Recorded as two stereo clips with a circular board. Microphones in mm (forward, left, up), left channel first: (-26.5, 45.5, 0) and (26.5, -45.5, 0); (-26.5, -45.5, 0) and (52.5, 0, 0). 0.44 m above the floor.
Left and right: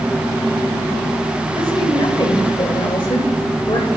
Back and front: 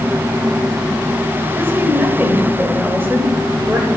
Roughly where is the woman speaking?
Left.